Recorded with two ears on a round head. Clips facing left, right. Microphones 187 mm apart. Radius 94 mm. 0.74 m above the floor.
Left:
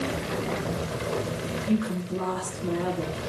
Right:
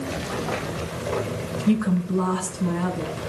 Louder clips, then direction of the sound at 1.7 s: Right 6 dB; 70° right (ahead or behind).